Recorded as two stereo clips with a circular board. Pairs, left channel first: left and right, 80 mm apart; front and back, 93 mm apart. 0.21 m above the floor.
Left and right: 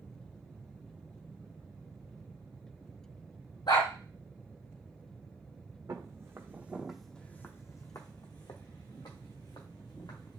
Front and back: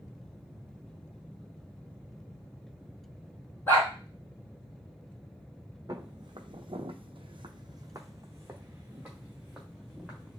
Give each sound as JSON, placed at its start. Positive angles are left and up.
{"t": 3.7, "sound": "a dog barking", "azimuth_deg": 70, "distance_m": 2.0}
{"t": 5.9, "sound": "footsteps", "azimuth_deg": -135, "distance_m": 0.9}